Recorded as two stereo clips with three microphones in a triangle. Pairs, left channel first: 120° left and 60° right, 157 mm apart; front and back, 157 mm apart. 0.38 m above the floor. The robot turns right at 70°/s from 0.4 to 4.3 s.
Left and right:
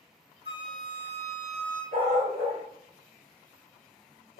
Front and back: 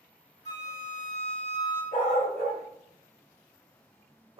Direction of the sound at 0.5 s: 40° right.